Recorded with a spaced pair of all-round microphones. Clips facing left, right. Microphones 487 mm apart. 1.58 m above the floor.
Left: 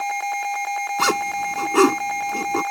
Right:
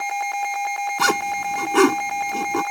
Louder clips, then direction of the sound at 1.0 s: Even; 5° right (ahead or behind).